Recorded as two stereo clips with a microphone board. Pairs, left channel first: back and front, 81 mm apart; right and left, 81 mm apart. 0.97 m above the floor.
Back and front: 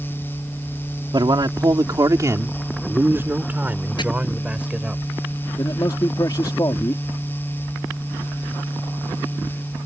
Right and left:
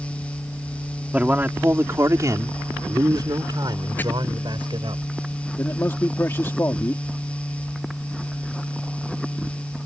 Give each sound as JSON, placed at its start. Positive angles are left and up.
{"t": 1.1, "sound": "a man speaking", "azimuth_deg": 15}
{"t": 4.0, "sound": "chopping", "azimuth_deg": -155}
{"t": 5.6, "sound": "a man speaking", "azimuth_deg": -145}